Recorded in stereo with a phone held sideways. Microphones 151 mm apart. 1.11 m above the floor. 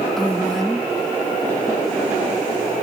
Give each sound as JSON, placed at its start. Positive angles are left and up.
{"t": 0.2, "sound": "a woman speaking", "side_deg": 5, "distance_m": 1.2}